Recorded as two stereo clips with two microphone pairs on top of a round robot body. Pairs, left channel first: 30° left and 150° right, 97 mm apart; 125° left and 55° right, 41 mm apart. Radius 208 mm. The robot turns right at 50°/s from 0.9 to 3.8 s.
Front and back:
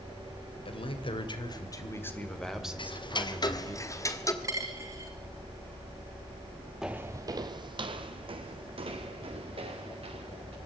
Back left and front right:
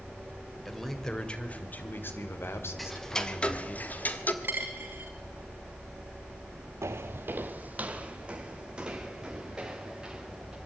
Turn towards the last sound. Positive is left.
turn(degrees=-130)